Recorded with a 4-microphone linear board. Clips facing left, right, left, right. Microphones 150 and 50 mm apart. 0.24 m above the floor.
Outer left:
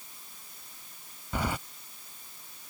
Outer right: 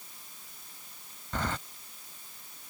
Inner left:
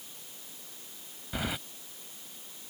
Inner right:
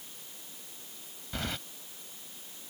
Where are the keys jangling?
10° left (ahead or behind).